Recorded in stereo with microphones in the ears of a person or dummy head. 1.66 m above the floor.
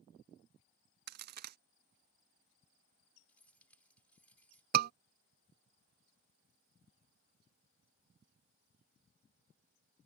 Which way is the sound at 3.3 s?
10° left (ahead or behind).